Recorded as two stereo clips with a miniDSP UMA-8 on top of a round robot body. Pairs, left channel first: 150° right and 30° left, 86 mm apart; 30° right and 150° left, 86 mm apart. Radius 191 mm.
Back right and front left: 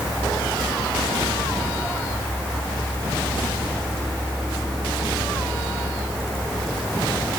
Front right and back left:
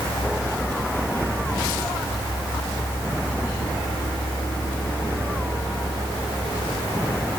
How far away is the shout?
No shout in this recording.